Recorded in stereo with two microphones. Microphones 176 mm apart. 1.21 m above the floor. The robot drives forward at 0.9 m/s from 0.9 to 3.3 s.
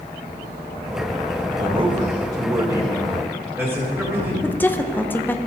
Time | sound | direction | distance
1.6 | a man speaking | 35° right (ahead or behind) | 0.9 m
4.4 | a woman speaking | 10° left (ahead or behind) | 0.6 m